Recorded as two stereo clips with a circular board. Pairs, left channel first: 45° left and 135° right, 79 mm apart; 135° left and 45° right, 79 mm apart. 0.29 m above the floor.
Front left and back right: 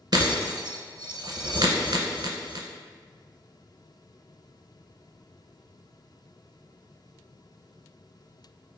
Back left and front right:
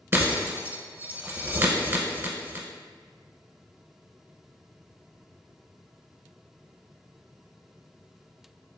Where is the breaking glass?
105° right, 0.6 m.